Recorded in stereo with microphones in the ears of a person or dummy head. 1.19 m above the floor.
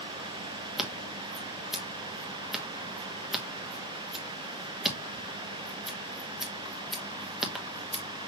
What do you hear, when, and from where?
0.8 s scissors: centre (ahead or behind), 1.2 m